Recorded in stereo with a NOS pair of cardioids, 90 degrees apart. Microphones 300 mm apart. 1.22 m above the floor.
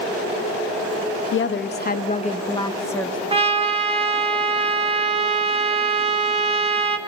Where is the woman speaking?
45° left, 1.4 m; by 3.2 s 5° left, 1.4 m.